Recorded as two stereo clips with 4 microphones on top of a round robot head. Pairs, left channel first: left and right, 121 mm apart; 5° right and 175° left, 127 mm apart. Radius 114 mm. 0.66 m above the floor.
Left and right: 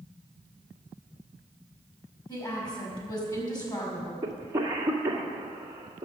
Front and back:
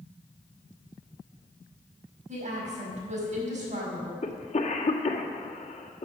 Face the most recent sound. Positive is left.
turn(degrees=-25)